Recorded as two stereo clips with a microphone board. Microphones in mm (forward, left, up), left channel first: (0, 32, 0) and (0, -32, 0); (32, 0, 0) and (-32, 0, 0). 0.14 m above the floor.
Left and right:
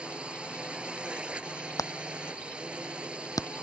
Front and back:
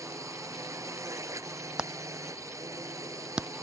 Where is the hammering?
105° left.